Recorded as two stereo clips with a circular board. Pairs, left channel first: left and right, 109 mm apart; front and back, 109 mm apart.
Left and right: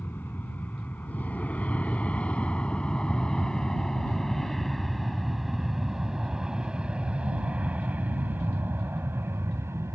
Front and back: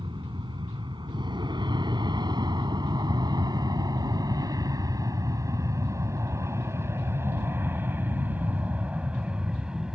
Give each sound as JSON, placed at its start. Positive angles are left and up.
{"t": 0.0, "sound": "an aircraft", "azimuth_deg": 155}